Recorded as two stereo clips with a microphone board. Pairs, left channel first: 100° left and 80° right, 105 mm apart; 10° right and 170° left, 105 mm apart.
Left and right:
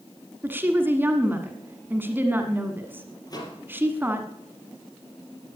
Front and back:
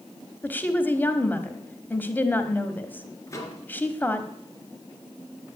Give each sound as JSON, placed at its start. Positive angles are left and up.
{"t": 0.4, "sound": "a woman speaking", "azimuth_deg": -50, "distance_m": 1.4}
{"t": 3.3, "sound": "a microwave", "azimuth_deg": 50, "distance_m": 3.5}